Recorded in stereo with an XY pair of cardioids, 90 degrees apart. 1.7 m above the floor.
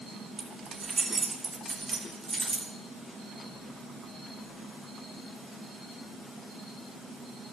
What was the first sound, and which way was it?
Keys jangling, 45° right.